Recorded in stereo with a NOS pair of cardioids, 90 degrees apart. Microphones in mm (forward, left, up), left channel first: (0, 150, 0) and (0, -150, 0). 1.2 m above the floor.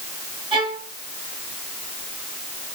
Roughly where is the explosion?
I don't hear an explosion.